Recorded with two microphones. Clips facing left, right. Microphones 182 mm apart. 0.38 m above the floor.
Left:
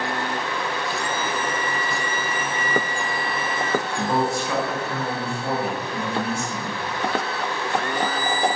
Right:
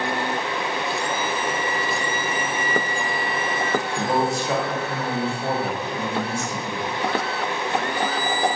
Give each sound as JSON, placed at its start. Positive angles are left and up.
{"t": 4.0, "sound": "a man speaking", "side_deg": -35, "distance_m": 1.1}